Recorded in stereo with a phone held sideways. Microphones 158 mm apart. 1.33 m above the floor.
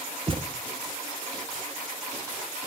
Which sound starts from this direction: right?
A thud, at 0.3 s.